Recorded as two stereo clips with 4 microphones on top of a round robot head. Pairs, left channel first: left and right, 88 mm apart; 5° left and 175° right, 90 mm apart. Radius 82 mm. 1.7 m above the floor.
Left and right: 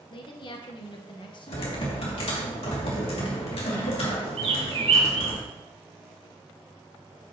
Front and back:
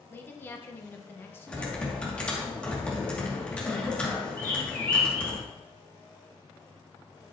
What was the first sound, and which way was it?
A woman speaking, 65° left.